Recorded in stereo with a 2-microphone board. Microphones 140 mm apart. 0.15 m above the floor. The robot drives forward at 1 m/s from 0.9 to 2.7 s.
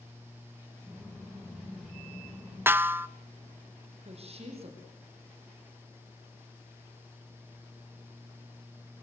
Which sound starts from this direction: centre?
A snare drum, at 2.7 s.